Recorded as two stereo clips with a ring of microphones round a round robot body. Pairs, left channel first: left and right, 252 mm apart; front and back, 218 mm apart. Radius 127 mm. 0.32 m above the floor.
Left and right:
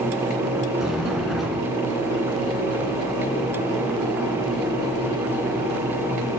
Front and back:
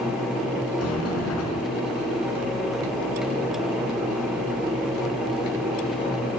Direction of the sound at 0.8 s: Straight ahead.